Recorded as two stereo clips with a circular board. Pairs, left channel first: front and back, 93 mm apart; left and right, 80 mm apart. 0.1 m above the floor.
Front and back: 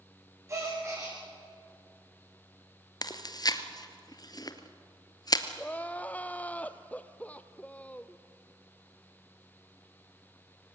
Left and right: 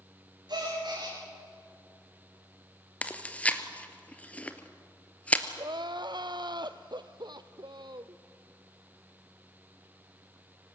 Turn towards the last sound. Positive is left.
turn(degrees=-70)